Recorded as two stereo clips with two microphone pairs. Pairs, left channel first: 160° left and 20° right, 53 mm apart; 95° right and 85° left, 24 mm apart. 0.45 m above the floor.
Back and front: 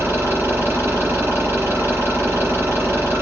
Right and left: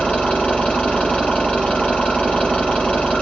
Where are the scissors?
I don't hear scissors.